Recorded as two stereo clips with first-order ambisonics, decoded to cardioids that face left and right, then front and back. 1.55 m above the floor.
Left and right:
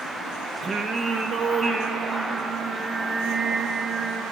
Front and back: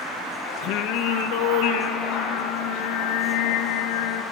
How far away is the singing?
About 1.4 m.